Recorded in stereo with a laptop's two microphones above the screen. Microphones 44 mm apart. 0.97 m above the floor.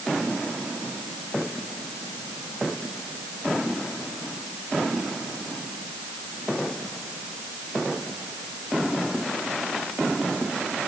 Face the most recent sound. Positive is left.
No sound to turn to.